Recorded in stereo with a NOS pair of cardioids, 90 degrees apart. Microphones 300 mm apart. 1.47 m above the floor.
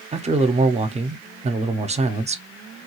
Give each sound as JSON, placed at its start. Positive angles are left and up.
{"t": 0.1, "sound": "a man speaking", "azimuth_deg": -20, "distance_m": 0.7}